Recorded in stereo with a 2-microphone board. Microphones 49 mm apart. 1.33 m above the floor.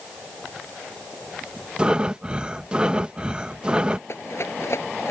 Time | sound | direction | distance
1.8 | breathing | 20° right (ahead or behind) | ?
4.1 | a rattle | 60° left (ahead or behind) | ?